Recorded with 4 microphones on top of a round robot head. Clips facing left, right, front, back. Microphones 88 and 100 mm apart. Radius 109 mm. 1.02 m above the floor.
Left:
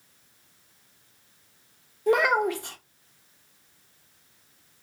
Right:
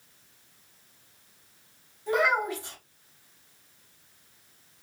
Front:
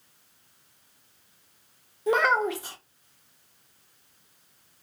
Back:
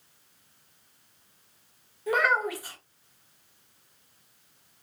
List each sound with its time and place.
2.1 s a child speaking: 65° left, 0.9 m